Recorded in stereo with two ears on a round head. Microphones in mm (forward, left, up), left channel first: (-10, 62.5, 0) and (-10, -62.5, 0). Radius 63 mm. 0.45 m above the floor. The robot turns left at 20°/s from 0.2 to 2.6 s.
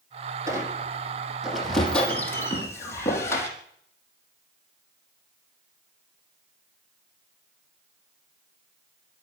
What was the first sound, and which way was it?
A squeak, 155° right.